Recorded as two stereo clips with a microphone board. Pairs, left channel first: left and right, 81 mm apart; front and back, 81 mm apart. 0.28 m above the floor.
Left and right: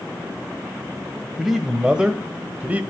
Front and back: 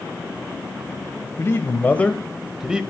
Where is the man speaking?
5° right, 1.2 m; by 2.8 s 125° right, 1.1 m.